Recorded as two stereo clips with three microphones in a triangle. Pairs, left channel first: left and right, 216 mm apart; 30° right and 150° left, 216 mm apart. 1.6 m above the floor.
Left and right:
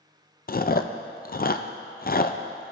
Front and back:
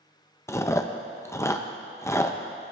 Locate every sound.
0.5 s chewing: 45° left, 0.5 m